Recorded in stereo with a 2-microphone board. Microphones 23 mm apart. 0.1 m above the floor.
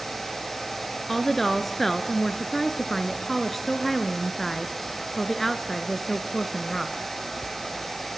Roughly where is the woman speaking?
Centre.